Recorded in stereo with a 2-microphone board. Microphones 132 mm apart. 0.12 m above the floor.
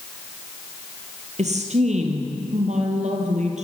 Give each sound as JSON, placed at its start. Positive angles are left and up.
{"t": 1.4, "sound": "a woman speaking", "side_deg": -60, "distance_m": 2.5}